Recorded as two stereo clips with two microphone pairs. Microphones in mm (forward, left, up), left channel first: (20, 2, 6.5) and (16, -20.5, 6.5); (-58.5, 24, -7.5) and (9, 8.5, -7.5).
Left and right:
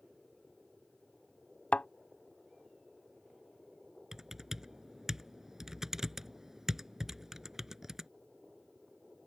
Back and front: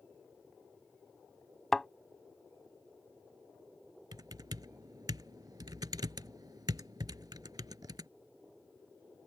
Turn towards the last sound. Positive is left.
turn(degrees=-25)